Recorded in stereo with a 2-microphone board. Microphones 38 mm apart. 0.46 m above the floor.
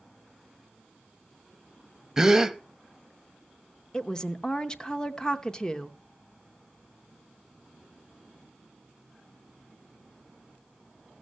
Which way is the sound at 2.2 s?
10° right (ahead or behind).